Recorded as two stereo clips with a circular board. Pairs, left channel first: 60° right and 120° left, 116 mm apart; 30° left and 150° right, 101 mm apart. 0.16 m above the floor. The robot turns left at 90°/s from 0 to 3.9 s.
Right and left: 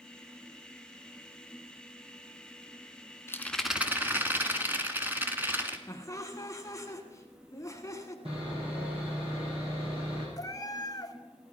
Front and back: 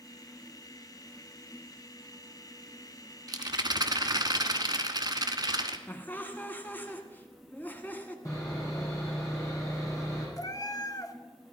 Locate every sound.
3.3 s a rattle: 120° right, 1.1 m; by 5.8 s 175° right, 1.1 m
5.9 s laughter: 25° right, 1.3 m
8.2 s sawing: 85° left, 6.5 m
10.4 s a cat meowing: 15° right, 0.9 m